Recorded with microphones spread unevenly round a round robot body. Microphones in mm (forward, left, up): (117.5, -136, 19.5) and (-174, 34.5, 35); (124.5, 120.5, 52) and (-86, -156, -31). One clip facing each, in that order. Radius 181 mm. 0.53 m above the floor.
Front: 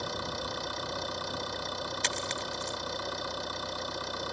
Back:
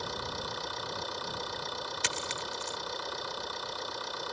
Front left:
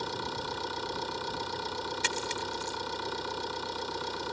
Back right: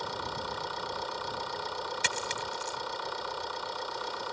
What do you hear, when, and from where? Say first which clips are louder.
0.0 s an engine running: front 2 dB, front left 2 dB; 5° right
2.0 s a dropped coin: front 2 dB, front left 2 dB; 135° right